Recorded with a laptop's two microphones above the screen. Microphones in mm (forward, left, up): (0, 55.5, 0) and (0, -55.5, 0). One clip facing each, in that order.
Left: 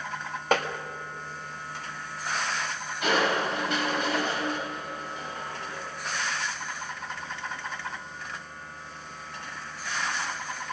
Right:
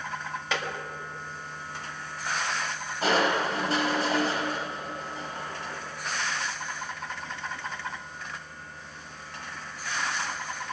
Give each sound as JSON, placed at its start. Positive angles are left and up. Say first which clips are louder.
{"t": 0.5, "sound": "tapping", "louder": "left 7 dB", "side_deg": 45, "distance_m": 1.4}
{"t": 3.0, "sound": "crushing", "louder": "right 1 dB", "side_deg": -35, "distance_m": 4.0}